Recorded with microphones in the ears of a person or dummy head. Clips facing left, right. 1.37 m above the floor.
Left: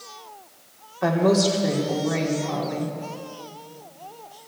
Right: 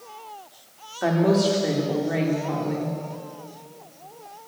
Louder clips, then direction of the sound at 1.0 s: Even; 10° right (ahead or behind).